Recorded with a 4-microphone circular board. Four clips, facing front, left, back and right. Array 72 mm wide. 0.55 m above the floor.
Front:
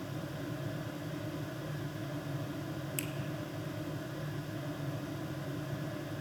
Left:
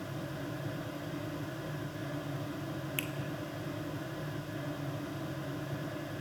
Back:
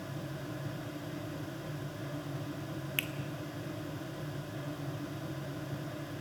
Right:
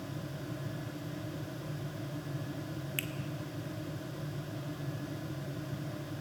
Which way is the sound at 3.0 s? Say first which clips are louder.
Even, back 7 dB; 175° right.